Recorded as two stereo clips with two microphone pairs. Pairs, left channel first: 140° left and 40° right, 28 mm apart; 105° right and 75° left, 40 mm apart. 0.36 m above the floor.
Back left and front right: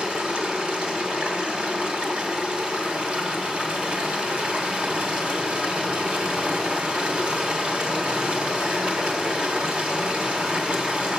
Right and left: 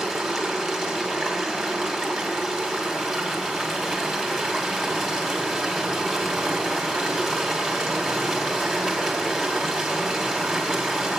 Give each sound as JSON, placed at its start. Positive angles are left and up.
{"t": 0.0, "sound": "running water", "azimuth_deg": -15, "distance_m": 2.5}